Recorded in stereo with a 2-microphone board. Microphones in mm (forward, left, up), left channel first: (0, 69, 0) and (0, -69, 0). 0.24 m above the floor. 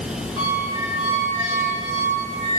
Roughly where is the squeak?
Left.